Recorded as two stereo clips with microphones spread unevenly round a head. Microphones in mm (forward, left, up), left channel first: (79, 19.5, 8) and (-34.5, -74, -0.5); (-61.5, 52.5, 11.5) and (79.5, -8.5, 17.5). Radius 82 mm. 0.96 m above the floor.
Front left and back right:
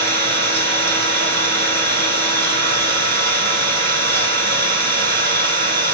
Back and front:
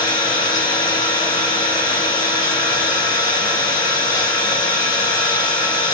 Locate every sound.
0.0 s an engine running: 130° right, 3 m